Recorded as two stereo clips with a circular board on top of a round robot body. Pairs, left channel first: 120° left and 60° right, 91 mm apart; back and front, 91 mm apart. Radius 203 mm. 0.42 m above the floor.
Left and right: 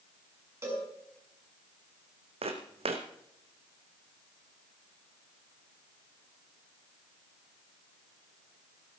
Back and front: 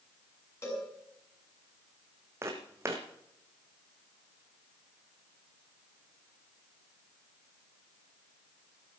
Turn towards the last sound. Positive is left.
turn(degrees=-65)